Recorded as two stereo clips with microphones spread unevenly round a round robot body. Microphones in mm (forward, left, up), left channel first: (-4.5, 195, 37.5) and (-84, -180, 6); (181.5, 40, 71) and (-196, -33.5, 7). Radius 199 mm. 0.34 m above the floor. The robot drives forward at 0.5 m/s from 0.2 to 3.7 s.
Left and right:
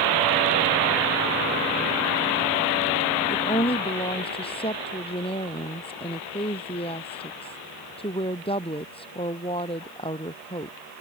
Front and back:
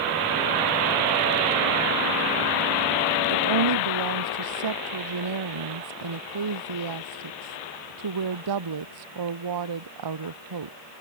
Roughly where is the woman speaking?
Behind left.